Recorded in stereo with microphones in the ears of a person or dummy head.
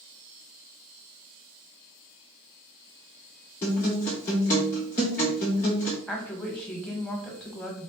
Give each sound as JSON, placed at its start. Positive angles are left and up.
{"t": 3.6, "sound": "a guitar", "side_deg": 15, "distance_m": 0.7}
{"t": 6.1, "sound": "a woman speaking", "side_deg": 5, "distance_m": 1.1}